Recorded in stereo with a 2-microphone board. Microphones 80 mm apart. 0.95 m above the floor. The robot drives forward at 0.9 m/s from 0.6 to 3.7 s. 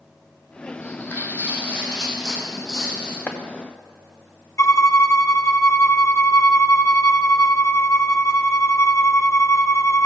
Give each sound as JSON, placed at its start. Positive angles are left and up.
{"t": 0.8, "sound": "footsteps", "side_deg": 35, "distance_m": 2.0}
{"t": 3.3, "sound": "chopping", "side_deg": 20, "distance_m": 0.9}
{"t": 4.6, "sound": "a violin", "side_deg": 40, "distance_m": 0.6}